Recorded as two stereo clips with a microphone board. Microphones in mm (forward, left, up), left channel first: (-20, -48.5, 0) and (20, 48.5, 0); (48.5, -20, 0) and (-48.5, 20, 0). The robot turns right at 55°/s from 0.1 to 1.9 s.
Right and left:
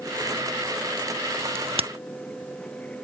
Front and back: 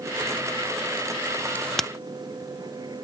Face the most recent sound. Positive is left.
turn(degrees=70)